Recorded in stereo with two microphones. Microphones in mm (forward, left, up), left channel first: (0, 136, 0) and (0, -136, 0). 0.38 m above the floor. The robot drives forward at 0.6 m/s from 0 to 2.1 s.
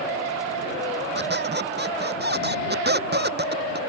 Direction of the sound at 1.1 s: 40° right (ahead or behind).